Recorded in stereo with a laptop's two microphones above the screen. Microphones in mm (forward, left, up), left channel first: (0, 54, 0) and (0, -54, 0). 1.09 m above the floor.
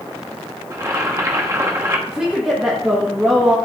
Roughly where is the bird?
No bird in this recording.